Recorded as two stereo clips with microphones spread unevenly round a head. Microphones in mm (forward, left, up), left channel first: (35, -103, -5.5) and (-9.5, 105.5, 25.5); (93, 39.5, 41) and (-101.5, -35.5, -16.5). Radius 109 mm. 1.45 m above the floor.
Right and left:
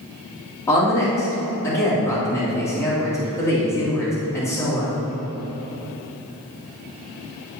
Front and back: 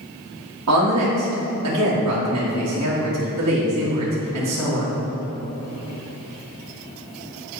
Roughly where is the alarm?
No alarm in this recording.